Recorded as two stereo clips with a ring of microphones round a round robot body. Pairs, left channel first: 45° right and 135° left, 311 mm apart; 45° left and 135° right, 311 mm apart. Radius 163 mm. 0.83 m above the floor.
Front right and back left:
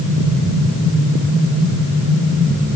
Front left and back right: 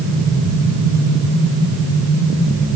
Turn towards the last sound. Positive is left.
No sound to turn to.